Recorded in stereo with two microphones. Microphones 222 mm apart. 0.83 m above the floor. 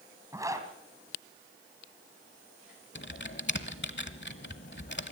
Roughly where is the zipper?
Centre.